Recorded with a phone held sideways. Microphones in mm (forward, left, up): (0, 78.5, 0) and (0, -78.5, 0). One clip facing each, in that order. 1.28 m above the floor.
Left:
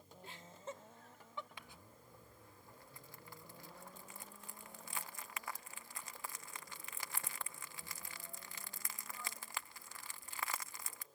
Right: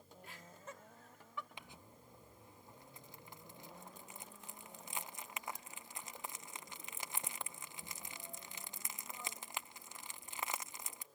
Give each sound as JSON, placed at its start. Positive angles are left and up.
{"t": 0.2, "sound": "laughter", "side_deg": 30}
{"t": 1.6, "sound": "crumpling", "side_deg": -20}